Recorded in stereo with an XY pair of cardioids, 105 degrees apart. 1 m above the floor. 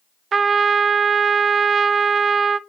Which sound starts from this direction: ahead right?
A trumpet, at 0.3 s.